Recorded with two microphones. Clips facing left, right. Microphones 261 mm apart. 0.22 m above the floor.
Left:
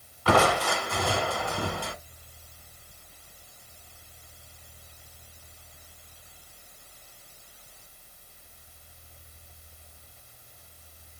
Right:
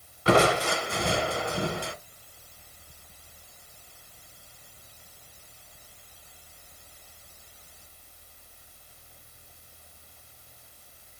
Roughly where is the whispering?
I don't hear whispering.